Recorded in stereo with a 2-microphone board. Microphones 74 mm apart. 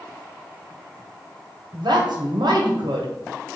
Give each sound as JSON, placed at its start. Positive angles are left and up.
{"t": 1.7, "sound": "a woman speaking", "side_deg": -85, "distance_m": 0.9}